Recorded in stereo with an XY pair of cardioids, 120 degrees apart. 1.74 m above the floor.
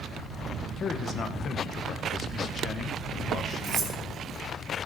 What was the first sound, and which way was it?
A man speaking, 50° left.